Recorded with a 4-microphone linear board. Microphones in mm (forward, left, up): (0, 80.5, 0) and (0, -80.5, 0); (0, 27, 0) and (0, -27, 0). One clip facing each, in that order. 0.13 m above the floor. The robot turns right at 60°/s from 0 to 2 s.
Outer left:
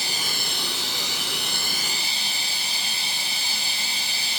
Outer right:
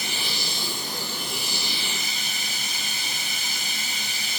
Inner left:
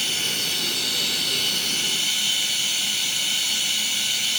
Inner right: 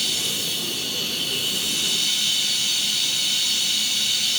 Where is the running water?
30° left, 4 m; by 4.4 s 150° left, 4 m.